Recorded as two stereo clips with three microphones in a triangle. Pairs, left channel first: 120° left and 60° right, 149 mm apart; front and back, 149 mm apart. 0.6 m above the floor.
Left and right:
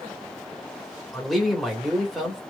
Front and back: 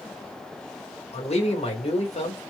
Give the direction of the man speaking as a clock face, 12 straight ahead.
11 o'clock.